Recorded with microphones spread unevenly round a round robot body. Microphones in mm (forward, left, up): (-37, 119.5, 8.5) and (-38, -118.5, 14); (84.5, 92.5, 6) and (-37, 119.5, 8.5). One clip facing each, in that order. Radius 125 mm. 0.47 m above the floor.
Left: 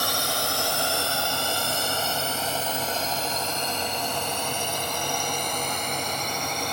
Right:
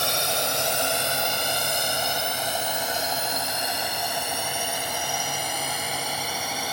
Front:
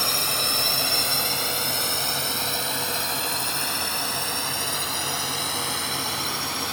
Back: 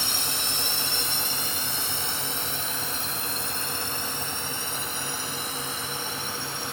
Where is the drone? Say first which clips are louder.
Right 1 dB, front 5 dB; 25° right; by 6.7 s 5° right.